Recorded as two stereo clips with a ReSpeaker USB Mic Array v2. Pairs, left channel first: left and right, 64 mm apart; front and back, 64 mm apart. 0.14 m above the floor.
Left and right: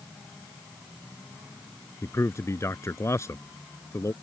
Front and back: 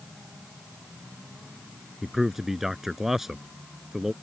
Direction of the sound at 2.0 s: 100° left.